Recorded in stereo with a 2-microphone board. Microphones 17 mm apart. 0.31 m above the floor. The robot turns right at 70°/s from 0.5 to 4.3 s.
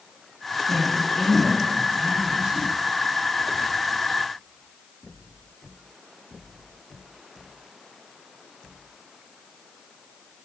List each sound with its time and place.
0.7 s a woman speaking: 135° left, 4 m; by 2.6 s 90° right, 4 m